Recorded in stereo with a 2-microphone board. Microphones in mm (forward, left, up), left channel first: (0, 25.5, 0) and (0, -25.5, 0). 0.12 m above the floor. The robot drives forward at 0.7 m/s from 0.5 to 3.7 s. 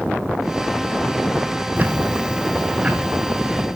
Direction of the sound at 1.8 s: 35° right (ahead or behind).